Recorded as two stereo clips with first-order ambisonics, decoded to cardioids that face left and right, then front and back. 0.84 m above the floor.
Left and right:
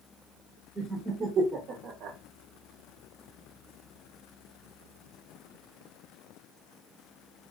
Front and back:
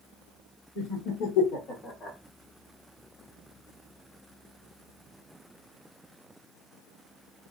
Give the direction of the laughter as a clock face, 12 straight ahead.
12 o'clock.